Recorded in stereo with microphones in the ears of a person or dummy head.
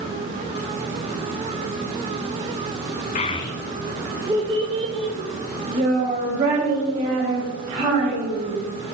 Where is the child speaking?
35° left (ahead or behind), 0.6 m; by 8.6 s 40° right (ahead or behind), 3.5 m.